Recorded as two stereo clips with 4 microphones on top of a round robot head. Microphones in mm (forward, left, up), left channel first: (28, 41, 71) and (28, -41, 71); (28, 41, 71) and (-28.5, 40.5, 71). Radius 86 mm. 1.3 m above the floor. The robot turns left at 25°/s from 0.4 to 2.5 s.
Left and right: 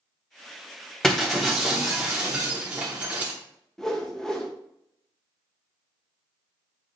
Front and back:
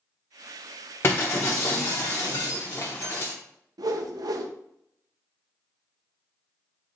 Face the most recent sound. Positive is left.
turn(degrees=175)